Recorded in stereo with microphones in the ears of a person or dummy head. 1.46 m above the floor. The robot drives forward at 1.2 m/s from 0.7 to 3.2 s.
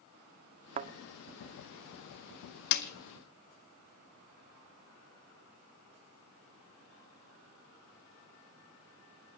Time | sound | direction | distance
0.8 | a thud | 35° right (ahead or behind) | 1.6 m
2.7 | a snare drum | 60° left (ahead or behind) | 1.7 m